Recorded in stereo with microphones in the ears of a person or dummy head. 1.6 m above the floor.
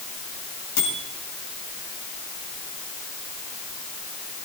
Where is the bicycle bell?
85° left, 9 m.